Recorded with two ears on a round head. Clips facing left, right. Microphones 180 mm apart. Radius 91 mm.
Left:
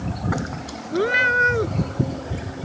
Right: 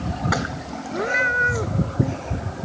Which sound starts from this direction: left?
A cat meowing, at 0.9 s.